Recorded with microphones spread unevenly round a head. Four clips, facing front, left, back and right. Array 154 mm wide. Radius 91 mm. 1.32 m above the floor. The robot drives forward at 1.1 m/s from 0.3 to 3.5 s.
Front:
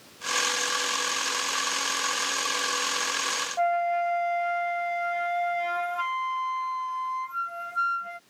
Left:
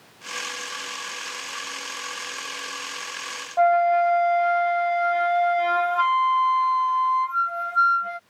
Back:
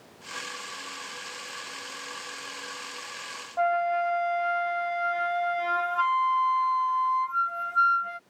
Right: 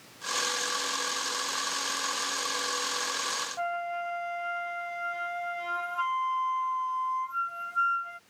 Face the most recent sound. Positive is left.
turn(degrees=105)